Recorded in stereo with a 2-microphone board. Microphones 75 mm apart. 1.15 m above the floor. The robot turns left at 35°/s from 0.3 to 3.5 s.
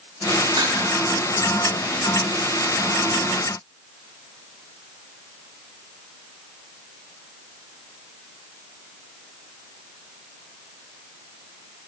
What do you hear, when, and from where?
0.6 s dishes clattering: 85° right, 7.5 m